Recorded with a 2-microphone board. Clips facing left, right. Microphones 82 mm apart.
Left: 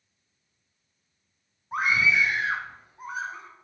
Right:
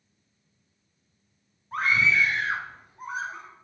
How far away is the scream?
About 1.4 m.